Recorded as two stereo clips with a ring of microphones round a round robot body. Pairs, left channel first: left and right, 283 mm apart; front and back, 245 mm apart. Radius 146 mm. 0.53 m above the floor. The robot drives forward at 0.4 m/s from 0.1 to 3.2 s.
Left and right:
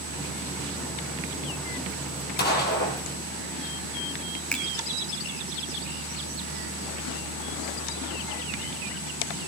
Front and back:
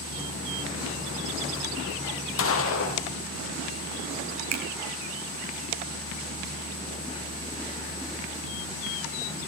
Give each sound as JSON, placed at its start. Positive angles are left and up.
{"t": 2.4, "sound": "a gunshot", "azimuth_deg": 30, "distance_m": 5.0}
{"t": 4.5, "sound": "a finger snap", "azimuth_deg": 175, "distance_m": 3.5}